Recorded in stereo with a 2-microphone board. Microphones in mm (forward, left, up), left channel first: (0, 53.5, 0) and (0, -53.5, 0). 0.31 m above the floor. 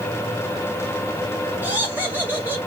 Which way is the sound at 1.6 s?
20° right (ahead or behind).